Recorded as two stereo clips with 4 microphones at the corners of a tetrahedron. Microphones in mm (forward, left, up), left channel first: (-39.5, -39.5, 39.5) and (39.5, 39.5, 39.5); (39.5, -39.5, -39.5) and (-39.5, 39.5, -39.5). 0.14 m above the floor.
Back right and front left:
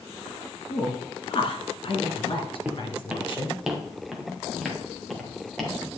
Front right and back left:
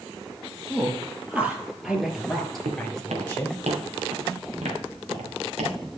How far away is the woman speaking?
About 2.5 m.